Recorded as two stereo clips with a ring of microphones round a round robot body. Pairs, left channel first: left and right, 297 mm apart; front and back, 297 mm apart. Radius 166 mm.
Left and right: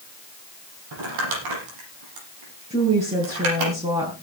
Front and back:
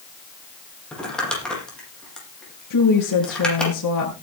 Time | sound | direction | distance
0.9 | crumpling | 85° right | 9 m
2.7 | a woman speaking | 15° right | 5.5 m